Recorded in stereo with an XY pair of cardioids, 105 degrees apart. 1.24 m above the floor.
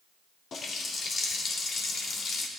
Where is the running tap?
50° left, 2.5 m.